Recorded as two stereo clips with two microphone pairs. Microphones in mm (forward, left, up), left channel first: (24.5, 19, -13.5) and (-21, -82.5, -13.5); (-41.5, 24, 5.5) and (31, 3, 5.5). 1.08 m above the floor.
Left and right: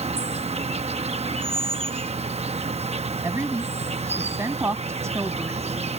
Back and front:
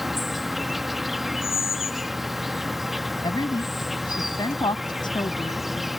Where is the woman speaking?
Straight behind.